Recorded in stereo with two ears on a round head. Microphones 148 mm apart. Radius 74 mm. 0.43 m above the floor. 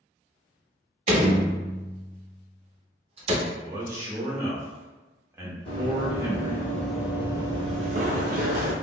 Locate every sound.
1.1 s a door slam: 35° right (ahead or behind), 0.6 m
3.5 s a man speaking: 15° right (ahead or behind), 0.7 m
5.7 s running footsteps: 35° left (ahead or behind), 1.1 m; by 8.7 s 65° right (ahead or behind), 0.9 m